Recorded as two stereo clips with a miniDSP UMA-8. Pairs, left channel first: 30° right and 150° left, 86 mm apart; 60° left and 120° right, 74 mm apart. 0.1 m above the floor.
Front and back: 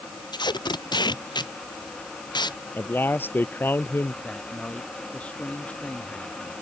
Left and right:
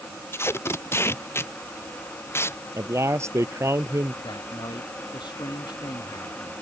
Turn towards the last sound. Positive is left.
turn(degrees=45)